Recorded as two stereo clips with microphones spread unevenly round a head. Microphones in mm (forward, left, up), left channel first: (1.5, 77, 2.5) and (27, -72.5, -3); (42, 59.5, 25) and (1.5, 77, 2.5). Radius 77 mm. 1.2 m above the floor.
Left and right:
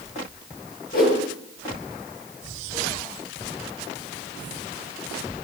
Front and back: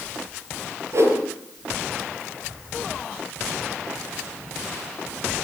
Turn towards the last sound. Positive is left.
turn(degrees=140)